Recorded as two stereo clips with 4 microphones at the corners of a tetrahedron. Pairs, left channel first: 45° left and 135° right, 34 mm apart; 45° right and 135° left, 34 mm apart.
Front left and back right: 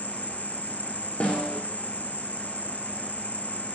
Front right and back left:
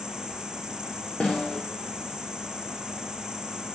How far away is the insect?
About 0.8 m.